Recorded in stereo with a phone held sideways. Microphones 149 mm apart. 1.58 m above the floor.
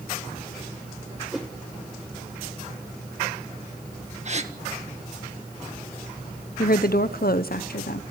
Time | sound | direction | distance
1.3 | a whoosh | centre (ahead or behind) | 1.8 m
4.2 | a gasp | 45° right (ahead or behind) | 1.6 m
6.6 | a woman speaking | 70° left (ahead or behind) | 1.0 m